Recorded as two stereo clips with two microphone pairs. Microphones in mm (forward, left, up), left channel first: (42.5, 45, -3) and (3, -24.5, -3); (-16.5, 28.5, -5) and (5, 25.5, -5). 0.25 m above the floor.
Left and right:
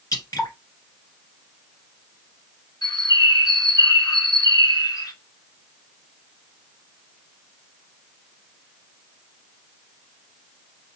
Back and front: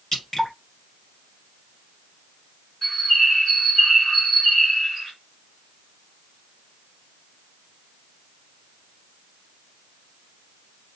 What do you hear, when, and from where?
0.1 s dripping: 100° left, 1.8 m
2.8 s a bird: 85° left, 2 m